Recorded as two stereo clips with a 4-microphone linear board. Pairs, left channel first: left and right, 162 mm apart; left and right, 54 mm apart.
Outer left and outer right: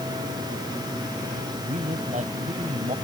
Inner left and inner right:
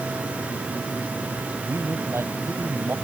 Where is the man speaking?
55° right (ahead or behind).